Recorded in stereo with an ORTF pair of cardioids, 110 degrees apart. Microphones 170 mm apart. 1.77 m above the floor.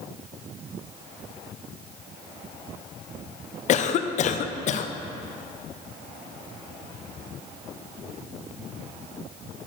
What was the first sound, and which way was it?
A cough, 50° left.